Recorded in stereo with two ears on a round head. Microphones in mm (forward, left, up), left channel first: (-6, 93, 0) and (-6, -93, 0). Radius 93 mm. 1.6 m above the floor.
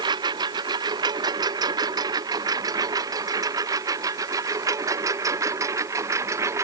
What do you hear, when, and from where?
0.0 s a lawn mower: 20° right (ahead or behind); by 6.6 s 15° right (ahead or behind)